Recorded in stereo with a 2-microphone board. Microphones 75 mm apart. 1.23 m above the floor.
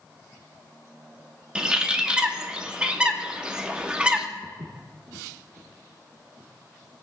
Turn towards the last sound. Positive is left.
turn(degrees=-55)  # may be behind; listen again after turning